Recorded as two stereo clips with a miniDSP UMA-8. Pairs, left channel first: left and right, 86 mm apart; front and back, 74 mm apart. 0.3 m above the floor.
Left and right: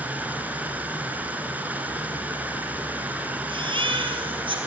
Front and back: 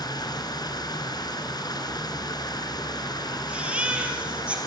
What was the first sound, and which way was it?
Running water, 20° right.